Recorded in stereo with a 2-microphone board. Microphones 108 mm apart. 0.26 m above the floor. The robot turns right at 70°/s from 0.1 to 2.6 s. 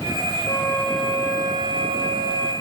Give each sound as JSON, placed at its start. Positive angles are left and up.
{"t": 0.5, "sound": "a flute", "azimuth_deg": 140, "distance_m": 8.0}